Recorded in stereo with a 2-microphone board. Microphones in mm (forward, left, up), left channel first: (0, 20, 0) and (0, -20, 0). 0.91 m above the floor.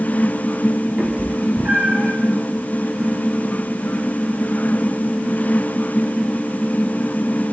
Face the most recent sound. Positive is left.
turn(degrees=-30)  # may be behind; listen again after turning